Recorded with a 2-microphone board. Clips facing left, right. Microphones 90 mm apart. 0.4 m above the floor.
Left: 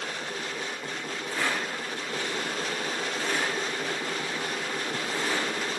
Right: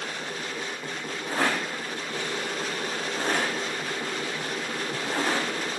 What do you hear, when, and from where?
1.3 s a rattle: 45° right (ahead or behind), 4.5 m